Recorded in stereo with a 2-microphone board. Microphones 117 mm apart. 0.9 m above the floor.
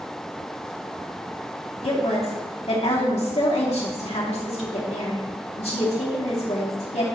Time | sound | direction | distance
1.8 | a woman speaking | 65° left (ahead or behind) | 2.5 m